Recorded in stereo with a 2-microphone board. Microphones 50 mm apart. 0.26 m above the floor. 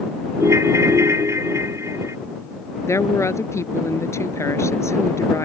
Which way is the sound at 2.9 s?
75° left (ahead or behind).